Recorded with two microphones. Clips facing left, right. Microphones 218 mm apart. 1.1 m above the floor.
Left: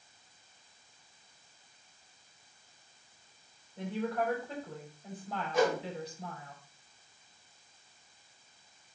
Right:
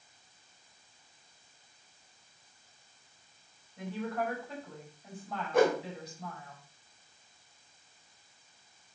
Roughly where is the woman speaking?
Left.